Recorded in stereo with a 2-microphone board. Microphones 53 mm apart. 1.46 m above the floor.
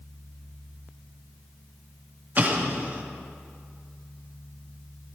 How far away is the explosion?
About 1.1 m.